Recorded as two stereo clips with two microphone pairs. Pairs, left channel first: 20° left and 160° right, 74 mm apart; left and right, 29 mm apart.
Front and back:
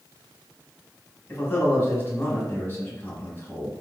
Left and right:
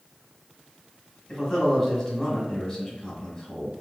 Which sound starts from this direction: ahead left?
A man speaking, at 1.3 s.